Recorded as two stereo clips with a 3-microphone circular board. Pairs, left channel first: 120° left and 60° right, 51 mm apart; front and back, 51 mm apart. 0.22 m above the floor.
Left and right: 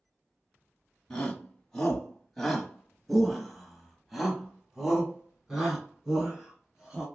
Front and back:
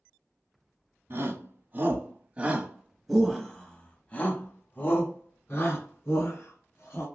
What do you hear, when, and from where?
1.1 s a shout: 160° right, 1.5 m; by 7.0 s 20° left, 2.5 m